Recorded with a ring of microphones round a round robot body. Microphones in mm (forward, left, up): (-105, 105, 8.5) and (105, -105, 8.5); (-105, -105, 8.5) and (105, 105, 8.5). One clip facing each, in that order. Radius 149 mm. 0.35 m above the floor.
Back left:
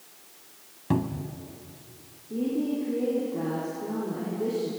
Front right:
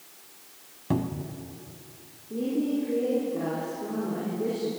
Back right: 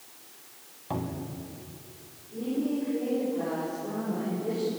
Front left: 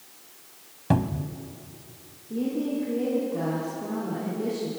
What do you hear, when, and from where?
0.9 s a cupboard door: 55° left, 1.2 m
2.3 s a woman speaking: 50° left, 9 m